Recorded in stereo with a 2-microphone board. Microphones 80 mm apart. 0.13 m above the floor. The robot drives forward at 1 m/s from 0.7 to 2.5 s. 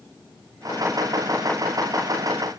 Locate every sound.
Only background noise.